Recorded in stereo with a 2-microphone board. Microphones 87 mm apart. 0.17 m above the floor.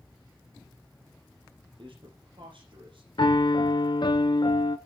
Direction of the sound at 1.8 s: 65° right (ahead or behind).